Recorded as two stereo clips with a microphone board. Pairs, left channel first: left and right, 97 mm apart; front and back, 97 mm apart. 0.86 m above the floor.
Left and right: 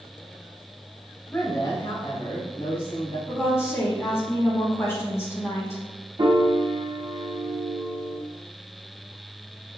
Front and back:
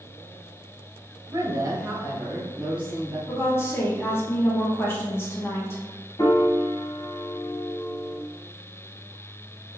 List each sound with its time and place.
1.3 s a woman speaking: 155° left, 0.9 m; by 3.2 s 105° left, 2.5 m
3.3 s a woman speaking: 45° left, 1.0 m
6.2 s a piano: 50° right, 0.8 m